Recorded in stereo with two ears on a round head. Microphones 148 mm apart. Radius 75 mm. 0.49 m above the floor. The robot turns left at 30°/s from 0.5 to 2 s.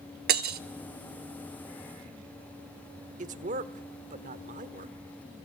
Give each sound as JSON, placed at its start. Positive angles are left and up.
{"t": 0.3, "sound": "breaking glass", "side_deg": -60, "distance_m": 0.8}
{"t": 3.2, "sound": "a man speaking", "side_deg": -45, "distance_m": 1.3}